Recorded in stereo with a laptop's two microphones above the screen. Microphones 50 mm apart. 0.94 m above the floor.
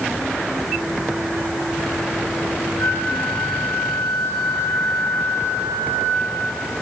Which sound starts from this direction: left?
A flute, at 2.8 s.